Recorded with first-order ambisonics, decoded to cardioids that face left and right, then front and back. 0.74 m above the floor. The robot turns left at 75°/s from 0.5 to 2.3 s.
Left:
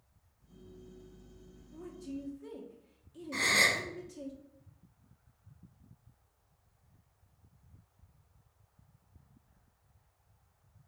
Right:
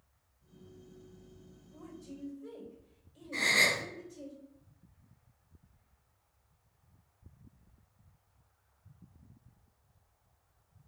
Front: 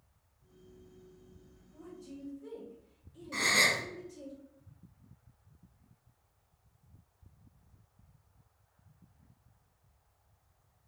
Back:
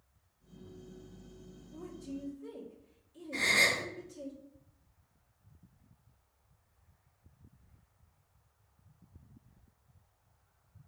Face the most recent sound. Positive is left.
turn(degrees=45)